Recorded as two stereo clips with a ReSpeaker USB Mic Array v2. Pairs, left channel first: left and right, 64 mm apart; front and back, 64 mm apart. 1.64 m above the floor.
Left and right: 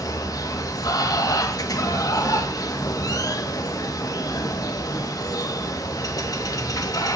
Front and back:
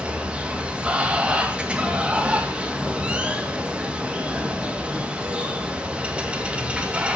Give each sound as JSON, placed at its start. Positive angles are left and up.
{"t": 0.0, "sound": "running water", "azimuth_deg": 105, "distance_m": 2.0}